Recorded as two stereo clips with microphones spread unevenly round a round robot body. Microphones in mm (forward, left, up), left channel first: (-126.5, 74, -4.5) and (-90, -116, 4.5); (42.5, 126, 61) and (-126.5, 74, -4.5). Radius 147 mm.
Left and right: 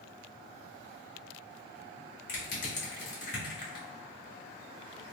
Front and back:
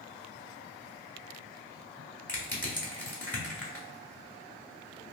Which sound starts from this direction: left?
Crushing, at 2.3 s.